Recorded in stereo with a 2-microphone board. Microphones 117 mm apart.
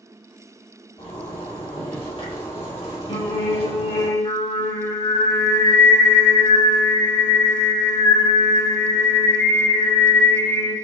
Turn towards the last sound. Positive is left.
turn(degrees=60)  # may be behind; listen again after turning